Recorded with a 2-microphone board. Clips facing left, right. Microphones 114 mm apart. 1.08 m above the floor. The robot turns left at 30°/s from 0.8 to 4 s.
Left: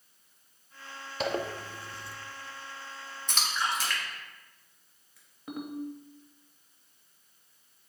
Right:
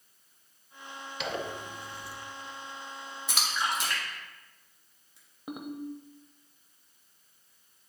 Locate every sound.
1.2 s a zipper: 40° left (ahead or behind), 0.6 m; by 2.2 s 25° left (ahead or behind), 0.6 m
3.3 s a splash: 5° right (ahead or behind), 1.6 m; by 5.2 s 25° right (ahead or behind), 1.6 m
5.5 s a ringtone: 20° right (ahead or behind), 0.7 m